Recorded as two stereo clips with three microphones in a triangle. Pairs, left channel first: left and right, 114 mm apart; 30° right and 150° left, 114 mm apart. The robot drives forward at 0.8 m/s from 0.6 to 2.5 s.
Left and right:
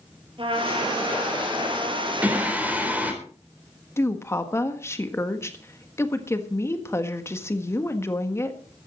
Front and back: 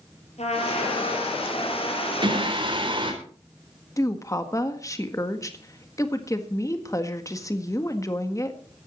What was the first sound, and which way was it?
A trumpet, 50° right.